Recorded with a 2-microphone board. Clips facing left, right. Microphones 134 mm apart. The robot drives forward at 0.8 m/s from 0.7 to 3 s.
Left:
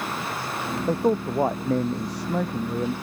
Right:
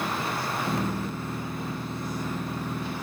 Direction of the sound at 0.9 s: 80° left.